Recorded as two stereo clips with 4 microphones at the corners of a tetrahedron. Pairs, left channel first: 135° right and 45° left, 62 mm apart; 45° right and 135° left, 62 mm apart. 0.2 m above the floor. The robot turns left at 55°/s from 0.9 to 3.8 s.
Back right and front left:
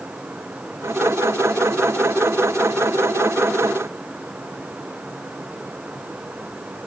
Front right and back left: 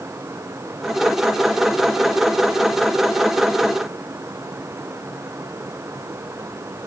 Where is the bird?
I don't hear a bird.